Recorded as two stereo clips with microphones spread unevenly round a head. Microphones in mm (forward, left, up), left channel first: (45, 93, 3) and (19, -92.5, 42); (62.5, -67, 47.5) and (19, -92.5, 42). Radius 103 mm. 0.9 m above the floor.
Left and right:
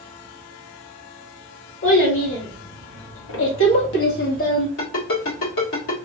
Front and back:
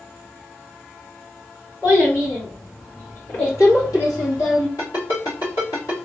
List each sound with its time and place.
1.8 s a child speaking: 100° left, 2.5 m; by 4.7 s 30° left, 1.0 m
4.8 s a ringtone: 75° left, 2 m